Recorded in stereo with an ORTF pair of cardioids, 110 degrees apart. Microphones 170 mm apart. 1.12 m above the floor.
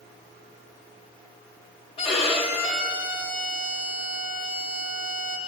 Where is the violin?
35° left, 4 m.